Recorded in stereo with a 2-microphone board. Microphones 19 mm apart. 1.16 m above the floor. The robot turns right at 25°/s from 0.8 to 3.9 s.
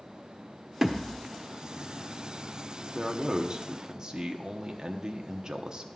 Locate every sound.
0.8 s a thud: 20° right (ahead or behind), 1.1 m; by 1.2 s 10° right (ahead or behind), 1.1 m
3.0 s a man speaking: 30° right (ahead or behind), 0.8 m; by 5.9 s 35° right (ahead or behind), 0.8 m